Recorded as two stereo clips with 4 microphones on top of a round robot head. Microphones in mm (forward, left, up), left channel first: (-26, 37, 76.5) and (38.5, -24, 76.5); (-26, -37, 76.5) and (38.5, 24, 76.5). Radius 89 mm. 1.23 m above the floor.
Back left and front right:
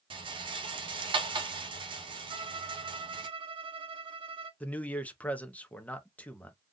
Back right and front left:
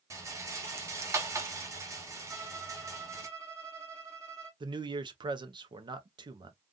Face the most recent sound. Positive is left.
turn(degrees=65)